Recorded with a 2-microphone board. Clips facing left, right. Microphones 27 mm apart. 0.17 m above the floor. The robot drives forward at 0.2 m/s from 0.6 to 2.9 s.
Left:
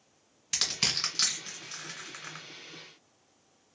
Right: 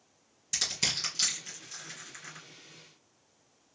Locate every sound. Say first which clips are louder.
0.5 s crushing: left 2 dB; 35° left (ahead or behind), 1.9 m